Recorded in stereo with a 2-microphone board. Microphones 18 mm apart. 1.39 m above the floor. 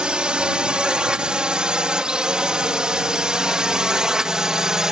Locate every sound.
0.0 s a drone: 55° right (ahead or behind); by 4.9 s 30° right (ahead or behind)